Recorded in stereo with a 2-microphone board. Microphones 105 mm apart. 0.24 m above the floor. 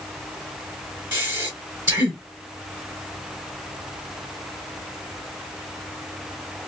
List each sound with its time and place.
1.1 s breathing: 20° right (ahead or behind), 1.3 m